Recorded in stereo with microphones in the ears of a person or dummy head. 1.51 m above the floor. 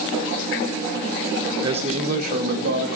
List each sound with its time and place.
1.6 s a man speaking: 30° right (ahead or behind), 1.0 m; by 3.0 s 70° right (ahead or behind), 2.5 m